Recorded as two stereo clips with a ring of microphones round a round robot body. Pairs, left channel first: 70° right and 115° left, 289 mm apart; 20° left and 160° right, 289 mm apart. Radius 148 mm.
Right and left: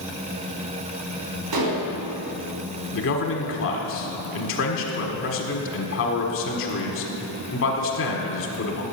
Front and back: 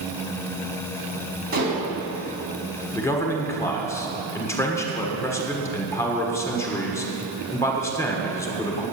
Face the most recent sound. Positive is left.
turn(degrees=-55)